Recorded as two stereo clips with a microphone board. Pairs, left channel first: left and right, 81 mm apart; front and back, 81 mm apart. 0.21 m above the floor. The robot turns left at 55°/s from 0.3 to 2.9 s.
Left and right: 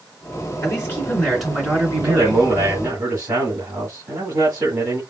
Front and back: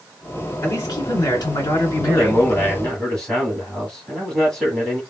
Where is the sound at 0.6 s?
45° left, 3 m; by 2.5 s 55° right, 3 m.